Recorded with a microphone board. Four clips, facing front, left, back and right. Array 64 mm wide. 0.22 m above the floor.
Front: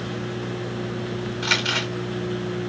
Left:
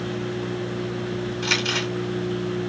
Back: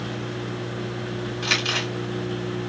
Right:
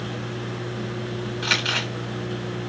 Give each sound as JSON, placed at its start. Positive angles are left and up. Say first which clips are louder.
{"t": 1.4, "sound": "crumpling", "louder": "right 1 dB, front 1 dB", "azimuth_deg": -90, "distance_m": 1.5}